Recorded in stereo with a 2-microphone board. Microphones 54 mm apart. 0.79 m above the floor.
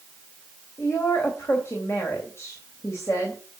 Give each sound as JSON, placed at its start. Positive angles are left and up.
{"t": 0.8, "sound": "a woman speaking", "side_deg": 55, "distance_m": 3.0}